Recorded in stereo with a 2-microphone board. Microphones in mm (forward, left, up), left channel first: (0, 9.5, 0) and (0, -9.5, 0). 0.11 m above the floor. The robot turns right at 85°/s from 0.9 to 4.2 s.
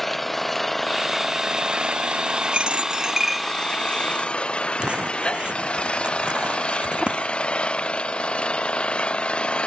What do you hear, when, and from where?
0.0 s an engine running: 170° left; by 9.7 s 90° left
2.5 s a dropped coin: 80° right; by 4.0 s 45° left (ahead or behind)
4.8 s crumpling: 80° right